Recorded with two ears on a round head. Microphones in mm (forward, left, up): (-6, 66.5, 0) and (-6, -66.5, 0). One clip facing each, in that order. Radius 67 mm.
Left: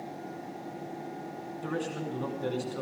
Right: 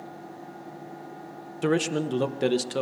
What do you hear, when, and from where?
1.6 s a man speaking: 90° right, 1.1 m